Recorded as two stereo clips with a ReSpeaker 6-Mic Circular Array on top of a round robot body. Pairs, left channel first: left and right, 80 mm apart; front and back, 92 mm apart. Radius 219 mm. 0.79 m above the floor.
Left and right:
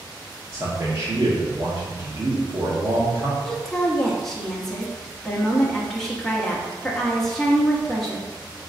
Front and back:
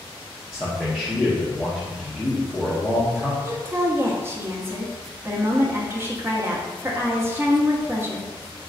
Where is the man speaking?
95° right, 0.9 m.